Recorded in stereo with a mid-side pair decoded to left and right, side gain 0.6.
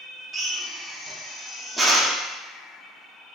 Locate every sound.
0.3 s a drill: 5° right, 1.0 m